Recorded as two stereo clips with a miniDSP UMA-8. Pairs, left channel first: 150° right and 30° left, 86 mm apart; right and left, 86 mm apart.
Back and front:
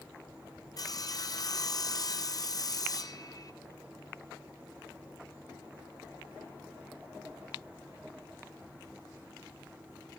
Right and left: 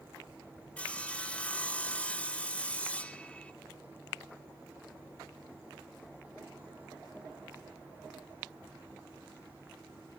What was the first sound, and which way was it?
Sawing, 160° right.